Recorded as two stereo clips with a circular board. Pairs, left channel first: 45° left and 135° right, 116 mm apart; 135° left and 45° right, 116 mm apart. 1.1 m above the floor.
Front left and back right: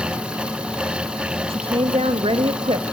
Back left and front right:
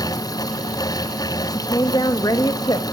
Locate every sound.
1.5 s a woman speaking: 170° right, 1.3 m